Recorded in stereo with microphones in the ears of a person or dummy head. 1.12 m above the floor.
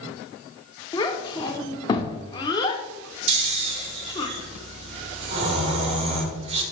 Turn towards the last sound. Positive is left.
turn(degrees=-30)  # may be behind; listen again after turning